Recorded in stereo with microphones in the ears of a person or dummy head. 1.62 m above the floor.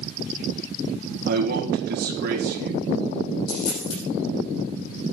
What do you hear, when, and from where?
1.3 s a man speaking: 50° right (ahead or behind), 2 m
3.5 s a dropped coin: 70° left (ahead or behind), 5.5 m